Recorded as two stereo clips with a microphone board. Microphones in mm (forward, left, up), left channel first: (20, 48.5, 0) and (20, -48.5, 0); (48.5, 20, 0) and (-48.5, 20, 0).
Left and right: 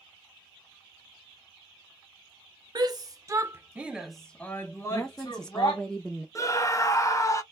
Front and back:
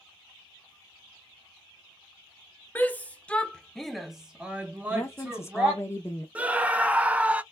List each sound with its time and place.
2.8 s a shout: 65° right, 0.9 m; by 5.8 s 120° left, 1.1 m
4.9 s a woman speaking: 15° left, 0.6 m
6.3 s a scream: 115° left, 0.7 m